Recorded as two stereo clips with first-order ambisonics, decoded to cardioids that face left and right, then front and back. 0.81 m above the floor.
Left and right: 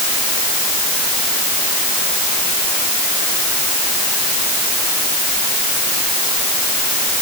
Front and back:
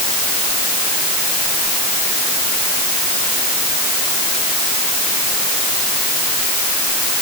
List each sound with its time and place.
Only background noise.